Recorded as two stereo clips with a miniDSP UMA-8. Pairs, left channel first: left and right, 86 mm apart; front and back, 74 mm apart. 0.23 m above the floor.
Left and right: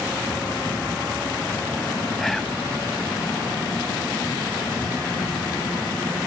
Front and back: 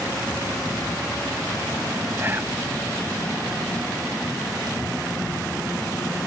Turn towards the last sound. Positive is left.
turn(degrees=175)